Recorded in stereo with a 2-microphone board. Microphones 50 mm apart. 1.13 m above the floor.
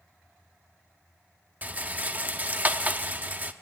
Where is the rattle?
35° right (ahead or behind), 0.9 m.